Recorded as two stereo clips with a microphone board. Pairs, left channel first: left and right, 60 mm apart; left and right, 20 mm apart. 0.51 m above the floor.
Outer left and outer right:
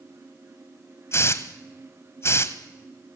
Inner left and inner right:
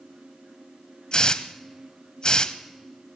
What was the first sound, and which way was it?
A hiss, 45° left (ahead or behind).